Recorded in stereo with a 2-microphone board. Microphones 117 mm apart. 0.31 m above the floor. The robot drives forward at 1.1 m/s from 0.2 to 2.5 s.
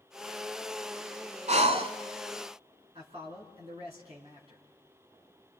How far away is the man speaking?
About 4 m.